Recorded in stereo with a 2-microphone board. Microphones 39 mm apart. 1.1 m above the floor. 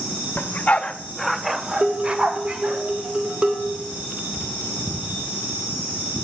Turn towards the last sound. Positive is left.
turn(degrees=-25)  # may be behind; listen again after turning